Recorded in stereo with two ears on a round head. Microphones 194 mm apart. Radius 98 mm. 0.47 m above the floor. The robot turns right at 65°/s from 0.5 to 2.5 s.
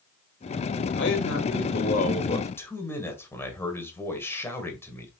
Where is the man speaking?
65° left, 2 m; by 5.1 s 165° left, 2 m.